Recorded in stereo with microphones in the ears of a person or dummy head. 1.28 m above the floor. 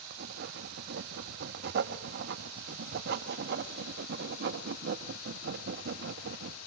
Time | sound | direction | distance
0.1 | writing | 65° right (ahead or behind) | 1.4 m